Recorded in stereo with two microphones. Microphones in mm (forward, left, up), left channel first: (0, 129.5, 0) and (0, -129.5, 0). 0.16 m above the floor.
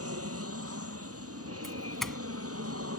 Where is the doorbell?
Centre (ahead or behind).